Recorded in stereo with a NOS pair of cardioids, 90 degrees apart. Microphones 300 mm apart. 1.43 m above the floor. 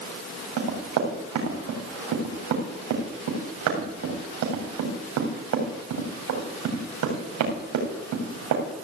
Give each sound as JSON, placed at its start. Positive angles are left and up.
{"t": 0.6, "sound": "running footsteps", "azimuth_deg": -65, "distance_m": 7.0}